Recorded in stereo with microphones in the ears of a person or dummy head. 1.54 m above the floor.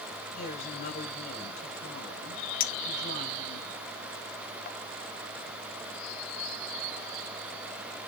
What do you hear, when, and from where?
0.3 s a woman speaking: 55° left (ahead or behind), 6.5 m
2.6 s a clink: 50° left (ahead or behind), 0.9 m